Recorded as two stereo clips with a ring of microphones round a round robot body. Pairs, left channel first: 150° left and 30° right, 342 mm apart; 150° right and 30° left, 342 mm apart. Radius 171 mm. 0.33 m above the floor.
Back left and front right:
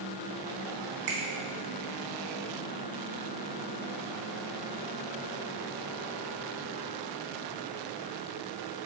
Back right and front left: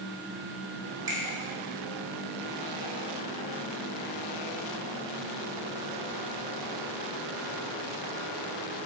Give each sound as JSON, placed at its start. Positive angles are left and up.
{"t": 1.1, "sound": "a finger snap", "azimuth_deg": -50, "distance_m": 2.0}